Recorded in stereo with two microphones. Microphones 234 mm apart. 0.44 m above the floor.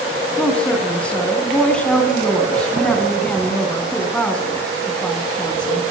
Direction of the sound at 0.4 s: 5° left (ahead or behind).